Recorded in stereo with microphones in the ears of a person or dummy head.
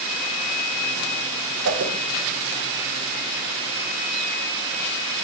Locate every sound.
1.6 s a whoosh: 70° right (ahead or behind), 0.9 m